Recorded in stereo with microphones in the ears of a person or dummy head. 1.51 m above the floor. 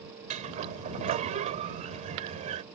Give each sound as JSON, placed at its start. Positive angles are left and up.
{"t": 0.3, "sound": "a sliding door", "side_deg": -40}